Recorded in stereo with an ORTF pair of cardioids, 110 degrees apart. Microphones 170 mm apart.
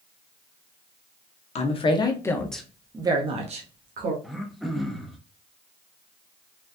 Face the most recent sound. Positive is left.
turn(degrees=0)